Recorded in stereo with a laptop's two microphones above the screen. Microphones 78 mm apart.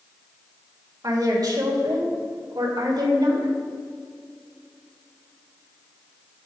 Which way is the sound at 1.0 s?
55° right (ahead or behind).